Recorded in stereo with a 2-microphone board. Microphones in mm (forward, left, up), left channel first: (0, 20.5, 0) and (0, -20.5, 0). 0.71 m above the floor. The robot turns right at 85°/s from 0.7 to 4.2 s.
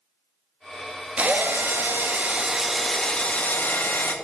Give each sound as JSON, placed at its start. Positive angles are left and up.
{"t": 1.2, "sound": "a drill", "azimuth_deg": -135, "distance_m": 0.9}